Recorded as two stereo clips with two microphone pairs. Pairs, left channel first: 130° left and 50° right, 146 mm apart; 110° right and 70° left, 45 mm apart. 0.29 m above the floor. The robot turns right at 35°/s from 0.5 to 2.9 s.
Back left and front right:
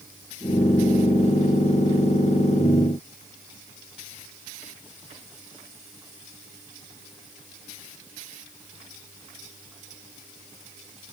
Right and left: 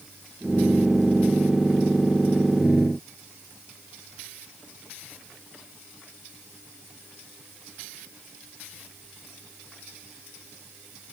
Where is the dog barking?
I don't hear a dog barking.